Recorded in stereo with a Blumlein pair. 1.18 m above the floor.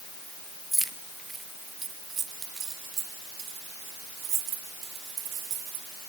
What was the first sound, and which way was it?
Keys jangling, straight ahead.